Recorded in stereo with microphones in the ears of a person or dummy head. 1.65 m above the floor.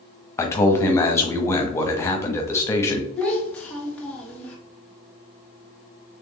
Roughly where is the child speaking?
Centre.